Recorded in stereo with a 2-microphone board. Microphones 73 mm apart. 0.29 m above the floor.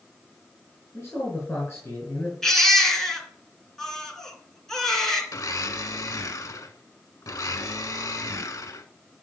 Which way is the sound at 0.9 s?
30° left (ahead or behind).